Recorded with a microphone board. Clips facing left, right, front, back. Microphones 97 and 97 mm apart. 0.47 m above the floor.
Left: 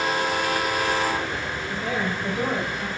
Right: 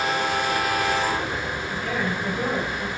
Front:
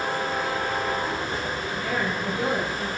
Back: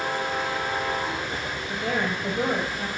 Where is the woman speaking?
145° left, 1.9 m; by 2.9 s 165° left, 2.5 m.